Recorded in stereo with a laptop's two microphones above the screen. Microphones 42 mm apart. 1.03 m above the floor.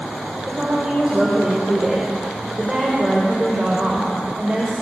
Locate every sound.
0.5 s a woman speaking: 25° right (ahead or behind), 5 m